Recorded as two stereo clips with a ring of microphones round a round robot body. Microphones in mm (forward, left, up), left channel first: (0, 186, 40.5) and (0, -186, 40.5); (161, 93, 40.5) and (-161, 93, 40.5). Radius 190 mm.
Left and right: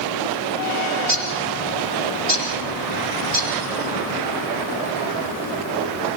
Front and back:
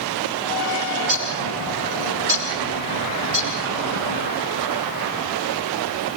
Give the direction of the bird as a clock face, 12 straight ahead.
5 o'clock.